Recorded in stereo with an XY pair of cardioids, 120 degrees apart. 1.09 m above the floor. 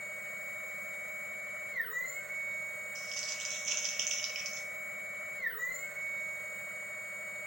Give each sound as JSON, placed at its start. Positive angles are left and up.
{"t": 0.0, "sound": "a machine running", "azimuth_deg": -20, "distance_m": 2.0}
{"t": 3.0, "sound": "crumpling", "azimuth_deg": -60, "distance_m": 4.0}